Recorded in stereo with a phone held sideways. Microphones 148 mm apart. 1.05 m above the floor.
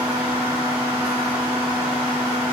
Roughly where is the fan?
Centre.